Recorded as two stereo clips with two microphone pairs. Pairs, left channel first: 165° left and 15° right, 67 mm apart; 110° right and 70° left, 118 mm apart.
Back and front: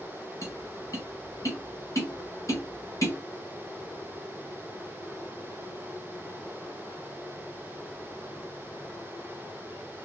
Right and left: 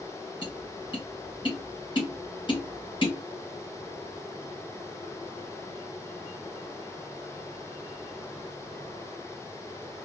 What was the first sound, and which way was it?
Tapping, 155° right.